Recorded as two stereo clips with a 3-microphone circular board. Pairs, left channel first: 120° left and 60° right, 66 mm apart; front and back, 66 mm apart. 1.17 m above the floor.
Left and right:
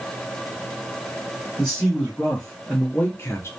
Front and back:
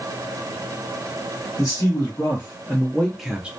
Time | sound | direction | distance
1.6 | a man speaking | 30° left | 1.3 m